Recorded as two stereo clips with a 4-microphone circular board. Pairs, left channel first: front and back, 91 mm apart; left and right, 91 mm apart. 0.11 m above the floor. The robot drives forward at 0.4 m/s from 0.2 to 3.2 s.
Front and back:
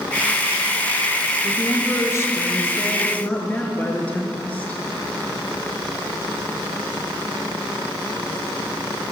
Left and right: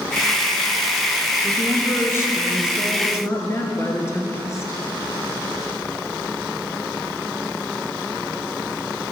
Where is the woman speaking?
35° left, 1.8 m; by 4.8 s 60° left, 1.4 m.